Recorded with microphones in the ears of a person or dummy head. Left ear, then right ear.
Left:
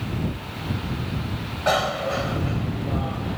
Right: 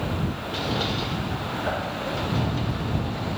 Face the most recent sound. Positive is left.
turn(degrees=85)